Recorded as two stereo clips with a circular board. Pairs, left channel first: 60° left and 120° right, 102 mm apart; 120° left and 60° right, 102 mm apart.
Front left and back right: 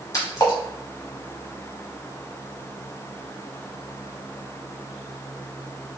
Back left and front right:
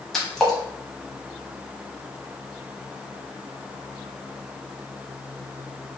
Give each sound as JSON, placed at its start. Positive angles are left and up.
{"t": 0.1, "sound": "a splash", "azimuth_deg": 35, "distance_m": 0.9}